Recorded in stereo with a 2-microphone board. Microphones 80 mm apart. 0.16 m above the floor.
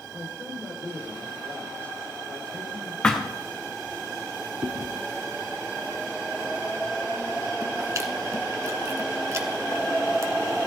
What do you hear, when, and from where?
0.1 s a man speaking: 15° left (ahead or behind), 6 m
3.0 s a thud: 10° left (ahead or behind), 2.5 m
4.6 s chewing: 40° right (ahead or behind), 1.0 m